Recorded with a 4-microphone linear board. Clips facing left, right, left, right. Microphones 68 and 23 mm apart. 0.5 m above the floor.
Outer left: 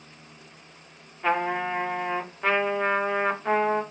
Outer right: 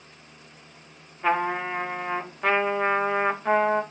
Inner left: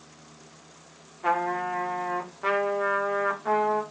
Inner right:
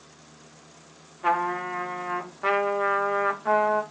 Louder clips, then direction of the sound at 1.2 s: Outer right 1 dB, inner right 1 dB; 5° right (ahead or behind).